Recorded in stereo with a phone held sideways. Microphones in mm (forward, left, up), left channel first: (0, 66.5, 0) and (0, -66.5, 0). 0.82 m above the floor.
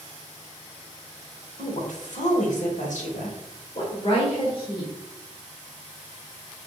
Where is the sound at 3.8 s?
40° left (ahead or behind), 2.5 m.